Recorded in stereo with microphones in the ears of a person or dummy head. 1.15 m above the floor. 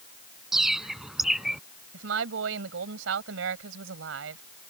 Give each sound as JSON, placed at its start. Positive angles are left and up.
{"t": 0.5, "sound": "a bird", "side_deg": -10}
{"t": 1.9, "sound": "a woman speaking", "side_deg": -70}